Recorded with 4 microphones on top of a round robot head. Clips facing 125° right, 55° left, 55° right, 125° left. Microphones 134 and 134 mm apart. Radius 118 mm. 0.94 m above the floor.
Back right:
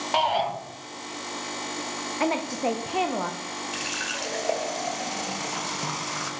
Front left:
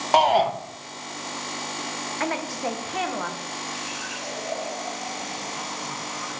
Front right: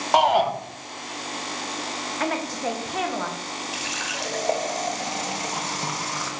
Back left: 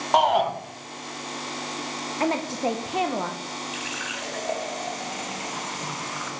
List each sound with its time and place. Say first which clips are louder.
0.1 s a shout: front left 6 dB, front right 1 dB; 35° left, 0.8 m
2.2 s a woman speaking: back right 3 dB, back left 2 dB; 175° left, 0.7 m
3.7 s a running tap: back right 1 dB, front right 2 dB; 110° right, 0.7 m